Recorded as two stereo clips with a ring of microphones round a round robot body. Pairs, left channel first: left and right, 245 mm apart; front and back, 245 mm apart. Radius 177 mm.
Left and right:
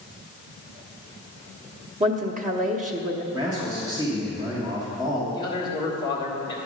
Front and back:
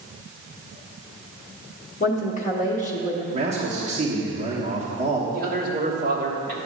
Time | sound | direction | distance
2.0 | a woman speaking | 45° right | 1.0 m
3.3 | a man speaking | 145° right | 1.1 m
5.3 | a man speaking | 155° right | 1.4 m